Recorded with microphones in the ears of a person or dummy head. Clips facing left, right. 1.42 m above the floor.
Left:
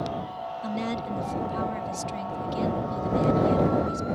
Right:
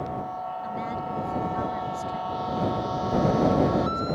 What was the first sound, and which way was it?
A woman speaking, 40° left (ahead or behind).